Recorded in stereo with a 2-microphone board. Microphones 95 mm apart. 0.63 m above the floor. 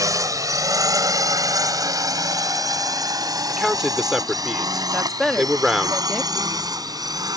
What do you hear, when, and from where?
0.0 s a drone: 40° right (ahead or behind); by 7.4 s 45° right (ahead or behind)
3.5 s a man speaking: 5° right (ahead or behind)
4.9 s a woman speaking: centre (ahead or behind)